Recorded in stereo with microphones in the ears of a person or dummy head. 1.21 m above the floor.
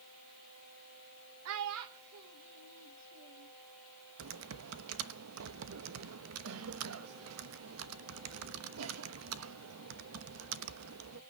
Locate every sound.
1.4 s a child speaking: 75° right (ahead or behind), 0.6 m; by 3.5 s 65° right (ahead or behind), 1.8 m
4.2 s typing on a keyboard: 85° right, 1.1 m